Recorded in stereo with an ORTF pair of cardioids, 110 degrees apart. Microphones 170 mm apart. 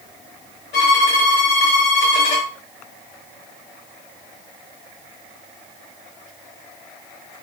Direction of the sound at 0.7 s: 70° left.